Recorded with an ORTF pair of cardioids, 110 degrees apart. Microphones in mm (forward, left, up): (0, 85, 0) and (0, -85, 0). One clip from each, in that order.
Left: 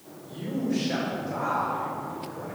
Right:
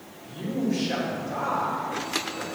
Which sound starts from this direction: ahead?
A man speaking, at 0.2 s.